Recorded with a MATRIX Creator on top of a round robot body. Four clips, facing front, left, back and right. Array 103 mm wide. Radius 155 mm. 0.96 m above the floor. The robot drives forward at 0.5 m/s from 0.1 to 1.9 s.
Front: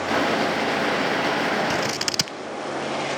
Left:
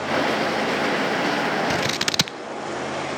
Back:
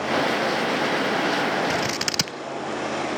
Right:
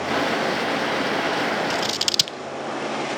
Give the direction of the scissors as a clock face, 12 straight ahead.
9 o'clock.